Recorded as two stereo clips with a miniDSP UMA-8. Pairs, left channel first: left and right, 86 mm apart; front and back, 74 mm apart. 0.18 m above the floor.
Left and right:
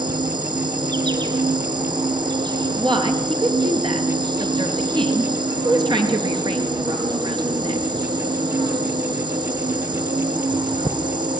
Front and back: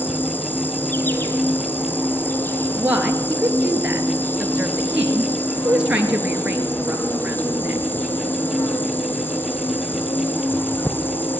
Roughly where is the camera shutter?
I don't hear a camera shutter.